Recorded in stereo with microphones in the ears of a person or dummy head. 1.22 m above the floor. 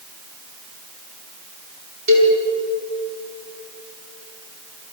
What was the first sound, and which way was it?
A cowbell, 55° right (ahead or behind).